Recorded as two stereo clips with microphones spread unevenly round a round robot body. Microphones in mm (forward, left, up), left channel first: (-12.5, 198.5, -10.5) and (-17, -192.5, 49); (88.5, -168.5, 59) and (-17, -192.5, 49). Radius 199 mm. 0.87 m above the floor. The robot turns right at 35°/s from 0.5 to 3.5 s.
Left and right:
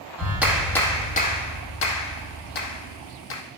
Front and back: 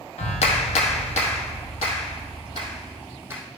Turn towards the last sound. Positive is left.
turn(degrees=105)